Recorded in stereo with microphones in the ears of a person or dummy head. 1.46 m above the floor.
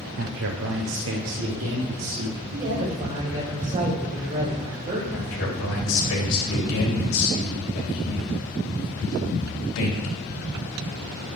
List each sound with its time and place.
0.2 s a man speaking: 60° right (ahead or behind), 0.5 m; by 2.4 s 80° right, 2 m
2.5 s a man speaking: 35° right (ahead or behind), 2.5 m
5.1 s a man speaking: 75° left (ahead or behind), 3 m